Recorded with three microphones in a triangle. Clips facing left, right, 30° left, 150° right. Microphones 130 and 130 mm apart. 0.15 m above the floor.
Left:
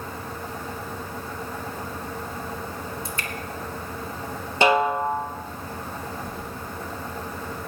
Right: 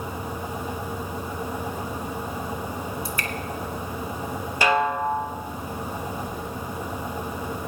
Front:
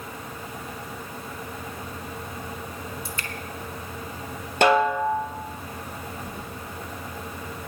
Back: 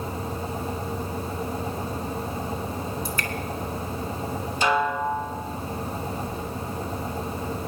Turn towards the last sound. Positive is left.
turn(degrees=5)